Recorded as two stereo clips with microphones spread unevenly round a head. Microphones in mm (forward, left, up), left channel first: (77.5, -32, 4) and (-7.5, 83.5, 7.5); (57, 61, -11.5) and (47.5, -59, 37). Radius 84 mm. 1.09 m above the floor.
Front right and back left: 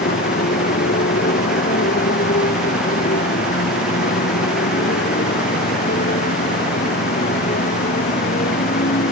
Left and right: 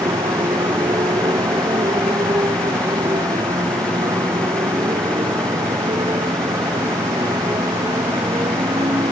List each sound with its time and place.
0.0 s a motorcycle: 35° right